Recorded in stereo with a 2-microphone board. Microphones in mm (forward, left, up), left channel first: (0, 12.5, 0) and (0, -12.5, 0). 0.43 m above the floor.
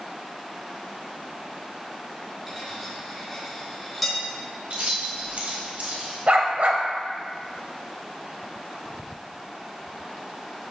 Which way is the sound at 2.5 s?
Centre (ahead or behind).